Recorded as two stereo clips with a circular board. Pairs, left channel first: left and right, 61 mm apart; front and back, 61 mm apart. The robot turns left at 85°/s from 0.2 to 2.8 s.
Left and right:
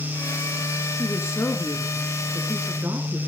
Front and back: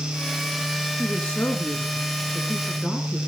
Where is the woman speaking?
90° left, 1.8 m; by 3.2 s 65° right, 1.8 m.